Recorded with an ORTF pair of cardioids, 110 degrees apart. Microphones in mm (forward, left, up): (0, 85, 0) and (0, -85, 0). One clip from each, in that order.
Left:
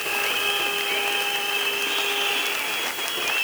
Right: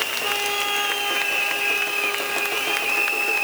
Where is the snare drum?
No snare drum in this recording.